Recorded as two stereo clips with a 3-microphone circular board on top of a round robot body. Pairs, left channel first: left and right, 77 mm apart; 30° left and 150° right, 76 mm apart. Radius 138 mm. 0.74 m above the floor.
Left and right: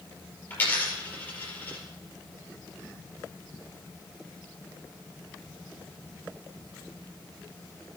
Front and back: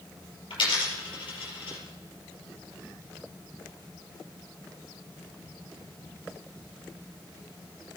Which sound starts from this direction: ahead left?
A dropped coin, at 0.5 s.